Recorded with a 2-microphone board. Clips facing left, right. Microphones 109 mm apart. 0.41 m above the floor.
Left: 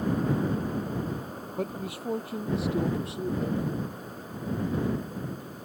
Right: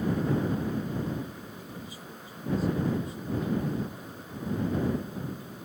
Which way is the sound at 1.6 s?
70° left (ahead or behind).